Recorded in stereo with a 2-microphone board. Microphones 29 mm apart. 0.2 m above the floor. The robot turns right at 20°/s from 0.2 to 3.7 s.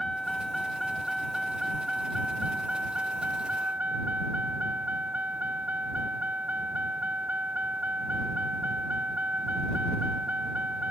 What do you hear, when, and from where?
0.0 s a vehicle: 165° left; by 10.9 s 125° right